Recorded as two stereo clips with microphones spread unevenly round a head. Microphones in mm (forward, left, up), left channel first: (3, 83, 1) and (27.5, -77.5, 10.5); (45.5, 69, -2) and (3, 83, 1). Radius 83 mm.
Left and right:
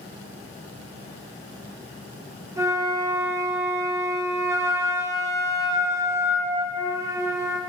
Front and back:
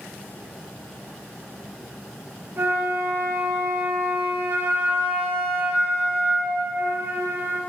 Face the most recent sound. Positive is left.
turn(degrees=-155)